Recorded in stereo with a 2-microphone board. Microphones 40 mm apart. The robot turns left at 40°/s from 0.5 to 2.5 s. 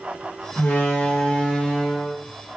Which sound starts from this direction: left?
A door slam, at 0.6 s.